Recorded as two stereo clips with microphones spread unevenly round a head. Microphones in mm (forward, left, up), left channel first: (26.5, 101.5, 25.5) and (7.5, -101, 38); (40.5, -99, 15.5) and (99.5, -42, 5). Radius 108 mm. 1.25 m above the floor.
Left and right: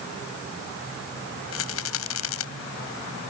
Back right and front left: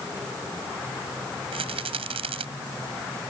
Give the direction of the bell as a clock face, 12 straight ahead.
No bell in this recording.